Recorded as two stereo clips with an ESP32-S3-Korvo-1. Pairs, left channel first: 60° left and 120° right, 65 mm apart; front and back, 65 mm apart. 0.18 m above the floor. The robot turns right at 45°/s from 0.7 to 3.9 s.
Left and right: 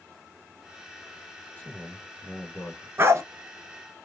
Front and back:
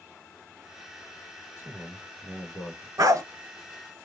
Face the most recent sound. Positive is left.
turn(degrees=-125)